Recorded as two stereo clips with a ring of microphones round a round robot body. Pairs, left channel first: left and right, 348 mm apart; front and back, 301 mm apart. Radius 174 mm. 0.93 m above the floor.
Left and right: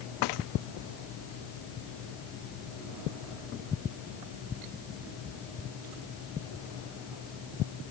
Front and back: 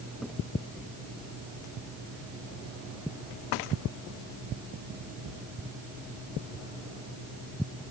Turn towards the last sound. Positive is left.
No sound to turn to.